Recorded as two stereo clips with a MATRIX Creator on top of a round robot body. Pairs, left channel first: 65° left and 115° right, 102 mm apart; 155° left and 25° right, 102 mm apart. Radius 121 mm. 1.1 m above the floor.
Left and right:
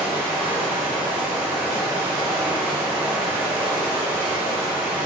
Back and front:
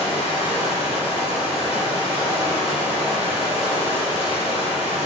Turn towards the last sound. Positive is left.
turn(degrees=170)